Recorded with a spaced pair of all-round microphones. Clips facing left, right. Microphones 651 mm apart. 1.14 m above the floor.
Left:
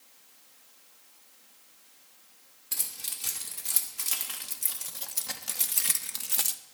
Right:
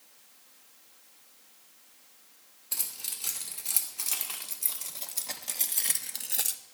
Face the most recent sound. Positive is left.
turn(degrees=30)  # may be behind; listen again after turning